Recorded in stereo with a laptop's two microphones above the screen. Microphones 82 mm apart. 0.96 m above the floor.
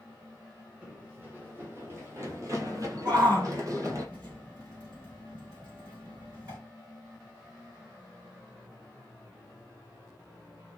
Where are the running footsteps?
20° right (ahead or behind), 1.8 m; by 4.0 s 40° right (ahead or behind), 1.5 m.